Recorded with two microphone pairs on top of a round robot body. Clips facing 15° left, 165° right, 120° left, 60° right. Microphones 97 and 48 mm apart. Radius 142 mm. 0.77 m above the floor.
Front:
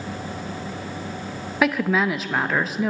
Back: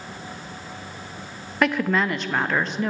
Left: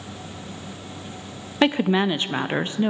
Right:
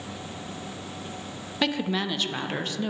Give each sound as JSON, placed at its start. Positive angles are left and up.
{"t": 1.6, "sound": "a woman speaking", "azimuth_deg": 85, "distance_m": 0.6}